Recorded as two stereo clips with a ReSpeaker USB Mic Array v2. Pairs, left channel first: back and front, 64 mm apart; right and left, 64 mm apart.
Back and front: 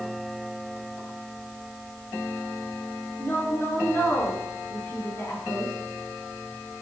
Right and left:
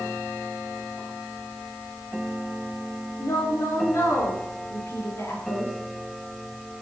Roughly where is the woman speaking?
Behind right.